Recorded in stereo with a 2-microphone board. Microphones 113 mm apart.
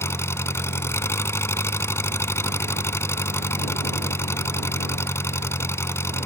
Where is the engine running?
20° left (ahead or behind).